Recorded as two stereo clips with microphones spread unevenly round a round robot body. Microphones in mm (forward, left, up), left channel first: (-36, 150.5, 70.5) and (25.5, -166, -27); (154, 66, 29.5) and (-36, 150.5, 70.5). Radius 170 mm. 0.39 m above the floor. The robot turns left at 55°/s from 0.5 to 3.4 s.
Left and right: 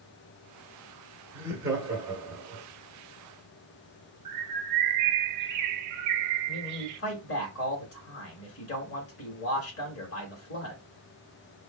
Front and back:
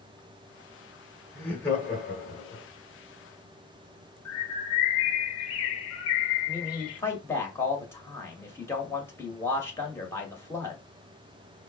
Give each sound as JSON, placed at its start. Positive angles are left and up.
{"t": 1.3, "sound": "laughter", "azimuth_deg": -55, "distance_m": 0.9}
{"t": 4.2, "sound": "a bird", "azimuth_deg": -35, "distance_m": 0.5}
{"t": 6.5, "sound": "a man speaking", "azimuth_deg": 45, "distance_m": 1.6}